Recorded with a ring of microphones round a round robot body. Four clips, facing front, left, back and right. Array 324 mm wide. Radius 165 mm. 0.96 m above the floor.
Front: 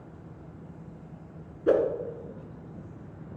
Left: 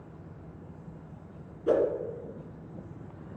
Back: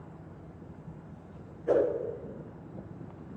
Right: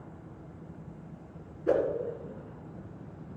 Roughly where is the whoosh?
Ahead.